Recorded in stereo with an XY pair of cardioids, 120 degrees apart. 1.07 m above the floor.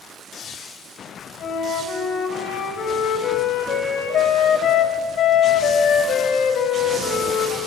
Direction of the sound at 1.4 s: 60° left.